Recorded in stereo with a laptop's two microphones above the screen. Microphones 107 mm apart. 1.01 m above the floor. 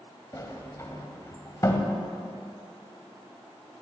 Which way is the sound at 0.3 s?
30° left (ahead or behind).